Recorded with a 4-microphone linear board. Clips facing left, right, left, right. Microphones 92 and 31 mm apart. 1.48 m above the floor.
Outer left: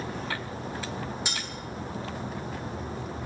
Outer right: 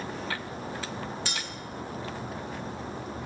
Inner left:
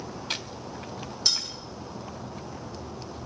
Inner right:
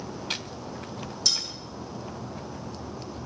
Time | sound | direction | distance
1.2 | cutlery clinking | 15° left (ahead or behind) | 0.8 m